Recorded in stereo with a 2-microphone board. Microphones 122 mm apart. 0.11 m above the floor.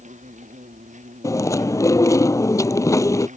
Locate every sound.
0.0 s an insect: 85° right
1.2 s chewing: 25° left (ahead or behind)